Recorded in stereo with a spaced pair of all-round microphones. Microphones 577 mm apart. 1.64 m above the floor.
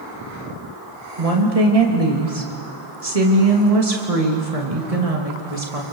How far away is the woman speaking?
About 3 m.